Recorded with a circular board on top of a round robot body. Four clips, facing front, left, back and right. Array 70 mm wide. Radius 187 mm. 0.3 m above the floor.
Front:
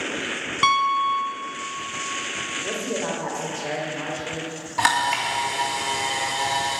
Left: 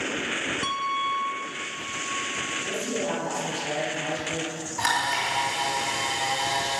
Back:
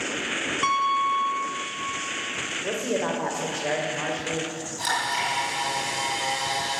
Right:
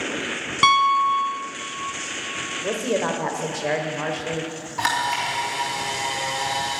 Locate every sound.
0.6 s a piano: 65° right, 0.8 m
2.6 s a woman speaking: 105° right, 1.9 m
4.8 s a camera shutter: 10° right, 3 m